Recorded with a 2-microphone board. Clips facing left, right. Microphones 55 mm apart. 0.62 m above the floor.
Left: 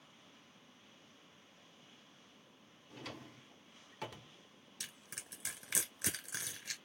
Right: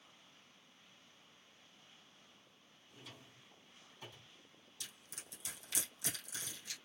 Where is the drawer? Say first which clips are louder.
Left 8 dB; 80° left, 0.6 m.